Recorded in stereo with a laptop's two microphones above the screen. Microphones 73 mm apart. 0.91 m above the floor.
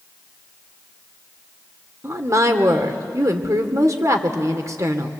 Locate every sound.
2.0 s a woman speaking: 45° right (ahead or behind), 2.5 m